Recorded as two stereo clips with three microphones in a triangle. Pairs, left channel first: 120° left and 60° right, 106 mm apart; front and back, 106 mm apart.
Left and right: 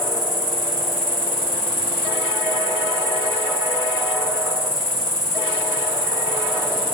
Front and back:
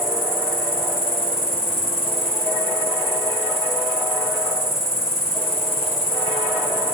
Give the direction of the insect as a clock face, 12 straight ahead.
1 o'clock.